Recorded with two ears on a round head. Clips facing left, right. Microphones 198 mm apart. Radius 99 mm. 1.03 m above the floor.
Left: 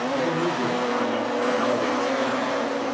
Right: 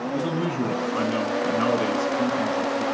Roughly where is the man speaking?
Right.